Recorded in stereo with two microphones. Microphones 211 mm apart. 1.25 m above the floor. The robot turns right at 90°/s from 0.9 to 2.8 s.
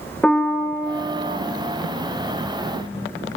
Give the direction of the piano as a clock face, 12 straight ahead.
6 o'clock.